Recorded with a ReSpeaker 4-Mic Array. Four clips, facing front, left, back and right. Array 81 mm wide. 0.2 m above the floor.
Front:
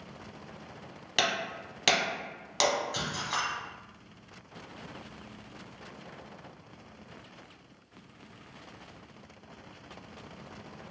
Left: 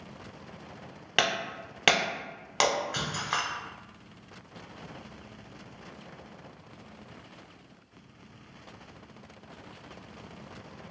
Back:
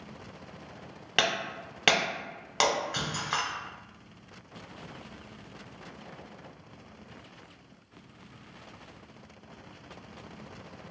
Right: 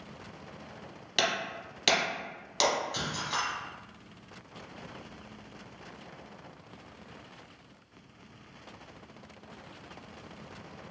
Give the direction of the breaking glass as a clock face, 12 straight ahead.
8 o'clock.